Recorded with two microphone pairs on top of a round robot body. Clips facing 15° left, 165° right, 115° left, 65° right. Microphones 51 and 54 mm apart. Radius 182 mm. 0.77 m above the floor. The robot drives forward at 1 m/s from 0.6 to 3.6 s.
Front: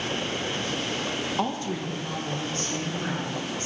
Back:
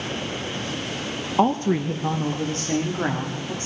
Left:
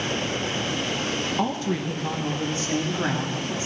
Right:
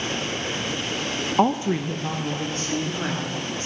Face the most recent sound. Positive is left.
turn(degrees=-170)